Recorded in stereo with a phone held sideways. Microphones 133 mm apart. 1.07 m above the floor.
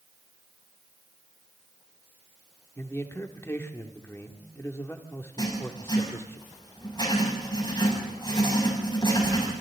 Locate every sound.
2.8 s a man speaking: 20° left (ahead or behind), 2.5 m
5.4 s writing: 35° left (ahead or behind), 6.5 m